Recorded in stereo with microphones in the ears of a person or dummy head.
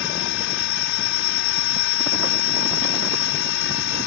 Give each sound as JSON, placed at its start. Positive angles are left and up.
{"t": 0.0, "sound": "a machine running", "side_deg": 70}